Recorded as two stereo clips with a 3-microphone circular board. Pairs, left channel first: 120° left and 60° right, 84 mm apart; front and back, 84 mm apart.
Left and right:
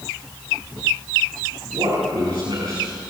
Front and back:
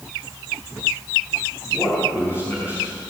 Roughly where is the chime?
I don't hear a chime.